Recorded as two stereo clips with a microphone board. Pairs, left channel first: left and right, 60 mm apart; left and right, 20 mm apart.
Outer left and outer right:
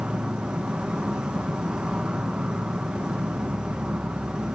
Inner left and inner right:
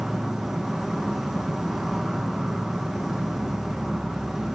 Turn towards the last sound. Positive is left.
turn(degrees=-15)  # may be behind; listen again after turning